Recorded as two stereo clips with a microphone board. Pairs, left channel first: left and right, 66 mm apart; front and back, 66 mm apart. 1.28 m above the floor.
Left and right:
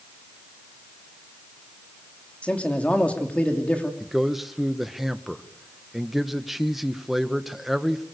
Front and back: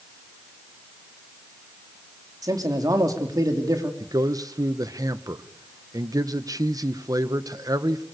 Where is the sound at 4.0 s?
Straight behind, 1.3 m.